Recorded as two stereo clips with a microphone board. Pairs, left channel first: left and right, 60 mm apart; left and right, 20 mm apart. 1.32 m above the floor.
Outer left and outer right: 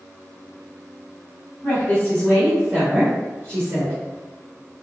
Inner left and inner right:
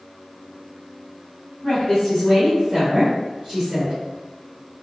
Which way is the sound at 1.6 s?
30° left (ahead or behind).